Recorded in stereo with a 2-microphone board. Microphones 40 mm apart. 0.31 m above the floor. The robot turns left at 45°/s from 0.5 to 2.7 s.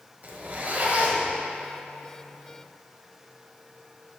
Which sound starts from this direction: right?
A zipper, at 0.2 s.